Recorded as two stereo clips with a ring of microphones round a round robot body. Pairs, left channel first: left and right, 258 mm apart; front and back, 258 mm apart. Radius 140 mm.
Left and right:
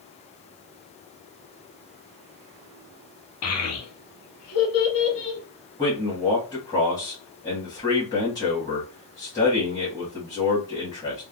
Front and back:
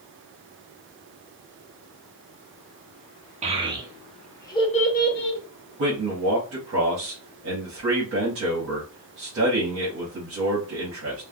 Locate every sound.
3.4 s a child speaking: 115° left, 1.0 m; by 5.4 s 40° left, 0.9 m
5.8 s a man speaking: 160° left, 1.3 m